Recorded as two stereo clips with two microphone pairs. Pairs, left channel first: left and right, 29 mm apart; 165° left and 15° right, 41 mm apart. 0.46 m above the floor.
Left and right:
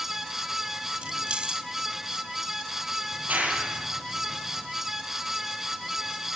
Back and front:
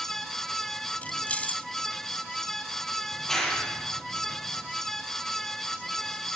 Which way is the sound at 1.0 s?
140° right.